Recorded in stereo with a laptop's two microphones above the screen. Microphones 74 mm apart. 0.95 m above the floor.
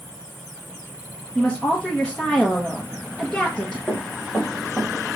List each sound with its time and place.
1.4 s a woman speaking: 15° left (ahead or behind), 0.9 m
3.9 s running footsteps: 10° right (ahead or behind), 4.5 m; by 5.2 s 20° right (ahead or behind), 4.5 m